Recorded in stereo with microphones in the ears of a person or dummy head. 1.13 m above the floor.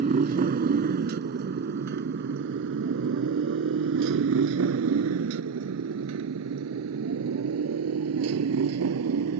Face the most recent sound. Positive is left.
turn(degrees=-80)